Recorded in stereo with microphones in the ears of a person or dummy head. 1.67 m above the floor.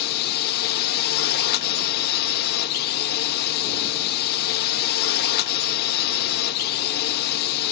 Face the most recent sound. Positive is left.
turn(degrees=50)  # may be behind; listen again after turning